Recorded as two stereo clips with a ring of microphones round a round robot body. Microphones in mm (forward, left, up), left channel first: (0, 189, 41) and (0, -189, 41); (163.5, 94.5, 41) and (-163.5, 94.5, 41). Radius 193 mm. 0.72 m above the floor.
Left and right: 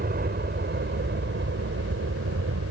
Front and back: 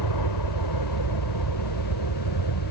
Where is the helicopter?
25° right; by 2.7 s 35° right.